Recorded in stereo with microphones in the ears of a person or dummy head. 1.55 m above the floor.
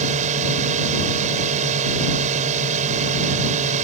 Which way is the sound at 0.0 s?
45° right (ahead or behind).